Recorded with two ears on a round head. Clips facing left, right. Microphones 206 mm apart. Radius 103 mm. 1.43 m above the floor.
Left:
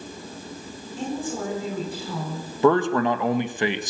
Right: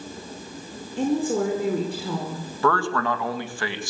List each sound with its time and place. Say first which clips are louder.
1.0 s a woman speaking: right 7 dB; 55° right (ahead or behind), 5 m
2.6 s a man speaking: left 5 dB; 20° left (ahead or behind), 1.6 m